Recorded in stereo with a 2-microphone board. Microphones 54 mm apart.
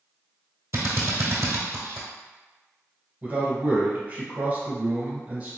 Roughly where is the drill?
Right.